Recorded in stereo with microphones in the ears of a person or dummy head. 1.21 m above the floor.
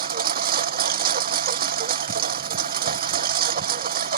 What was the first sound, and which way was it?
A lawn mower, 45° right (ahead or behind).